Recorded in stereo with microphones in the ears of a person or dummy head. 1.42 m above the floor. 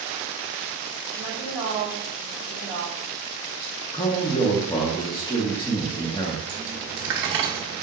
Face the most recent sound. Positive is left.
turn(degrees=-20)  # may be behind; listen again after turning